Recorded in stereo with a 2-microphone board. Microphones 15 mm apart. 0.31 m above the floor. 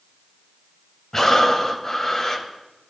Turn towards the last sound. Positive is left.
turn(degrees=35)  # may be behind; listen again after turning